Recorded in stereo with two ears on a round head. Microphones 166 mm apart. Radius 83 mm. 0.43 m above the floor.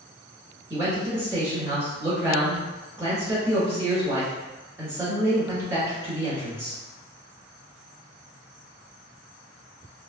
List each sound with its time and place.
0.7 s a man speaking: 15° right (ahead or behind), 1.4 m